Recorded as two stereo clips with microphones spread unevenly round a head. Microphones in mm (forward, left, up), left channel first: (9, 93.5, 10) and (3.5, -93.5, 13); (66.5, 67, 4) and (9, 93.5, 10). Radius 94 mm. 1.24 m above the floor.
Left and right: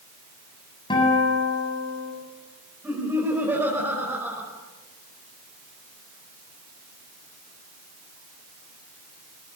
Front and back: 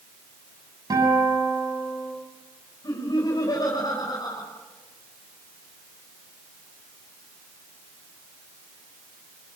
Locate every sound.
0.9 s a guitar: 155° left, 7.5 m
2.8 s laughter: 15° right, 5.5 m